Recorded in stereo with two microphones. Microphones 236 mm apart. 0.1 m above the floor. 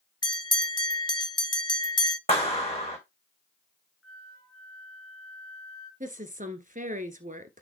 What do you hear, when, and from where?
0.2 s a bell: 20° left (ahead or behind), 0.6 m
2.3 s a clap: 25° left (ahead or behind), 5 m
4.0 s a flute: 65° left (ahead or behind), 2 m
6.0 s a woman speaking: 35° right (ahead or behind), 1.2 m